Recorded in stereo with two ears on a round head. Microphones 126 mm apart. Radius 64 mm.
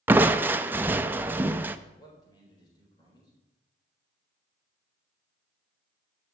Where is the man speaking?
25° left (ahead or behind), 3.5 m.